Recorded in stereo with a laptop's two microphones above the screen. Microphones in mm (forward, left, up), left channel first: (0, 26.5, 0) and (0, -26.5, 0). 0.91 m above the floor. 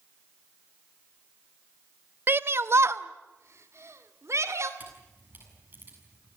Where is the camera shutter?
35° right (ahead or behind), 7 m.